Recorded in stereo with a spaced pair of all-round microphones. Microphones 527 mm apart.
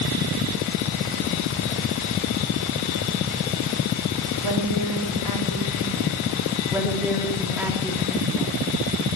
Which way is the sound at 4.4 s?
55° right (ahead or behind).